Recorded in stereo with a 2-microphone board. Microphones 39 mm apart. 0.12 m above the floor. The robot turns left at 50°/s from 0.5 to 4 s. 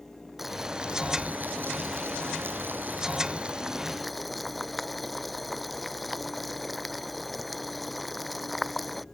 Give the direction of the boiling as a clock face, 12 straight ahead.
12 o'clock.